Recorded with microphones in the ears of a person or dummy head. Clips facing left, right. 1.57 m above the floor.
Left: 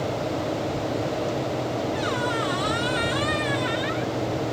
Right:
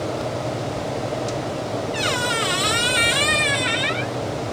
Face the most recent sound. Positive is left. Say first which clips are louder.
# right 1 dB
turn(degrees=-25)  # may be behind; listen again after turning